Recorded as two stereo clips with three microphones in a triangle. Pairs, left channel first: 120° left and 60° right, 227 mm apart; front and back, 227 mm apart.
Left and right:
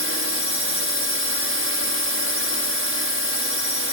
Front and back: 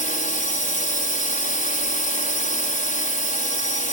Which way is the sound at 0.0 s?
50° right.